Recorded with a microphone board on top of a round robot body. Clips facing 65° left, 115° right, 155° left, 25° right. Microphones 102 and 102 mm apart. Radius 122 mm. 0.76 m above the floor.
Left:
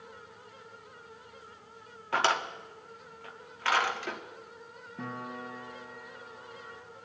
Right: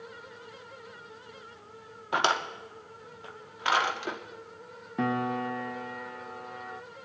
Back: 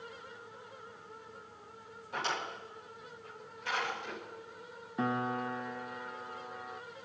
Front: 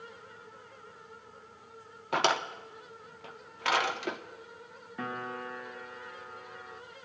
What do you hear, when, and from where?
2.1 s a drawer: 40° right, 0.9 m
5.0 s a piano: 135° right, 0.5 m